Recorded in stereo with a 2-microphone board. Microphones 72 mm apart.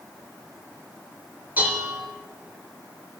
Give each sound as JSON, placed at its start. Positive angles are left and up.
{"t": 1.6, "sound": "dishes clattering", "side_deg": -25, "distance_m": 4.0}